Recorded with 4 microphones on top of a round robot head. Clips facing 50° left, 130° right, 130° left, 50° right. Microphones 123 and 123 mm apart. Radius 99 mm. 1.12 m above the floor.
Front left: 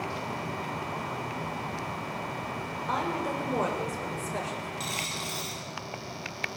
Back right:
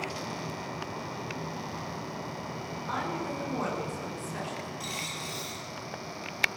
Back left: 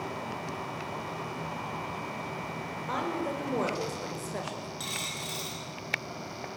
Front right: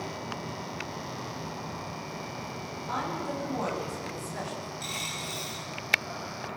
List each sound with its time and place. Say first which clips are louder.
2.9 s a woman speaking: front left 3 dB, back left 1 dB; 105° left, 6 m
4.8 s a dropped coin: front left 2 dB, front right 1 dB; 120° left, 6.5 m